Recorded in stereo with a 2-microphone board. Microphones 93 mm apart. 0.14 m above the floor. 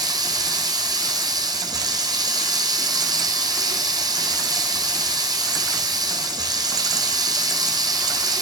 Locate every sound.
0.0 s running water: 45° right (ahead or behind), 1.4 m